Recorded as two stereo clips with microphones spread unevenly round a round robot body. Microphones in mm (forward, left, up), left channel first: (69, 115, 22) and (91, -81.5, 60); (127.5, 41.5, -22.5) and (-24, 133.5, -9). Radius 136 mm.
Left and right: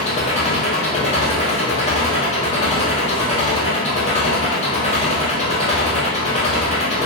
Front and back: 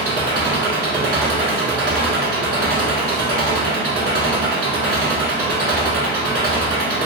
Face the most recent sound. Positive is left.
turn(degrees=160)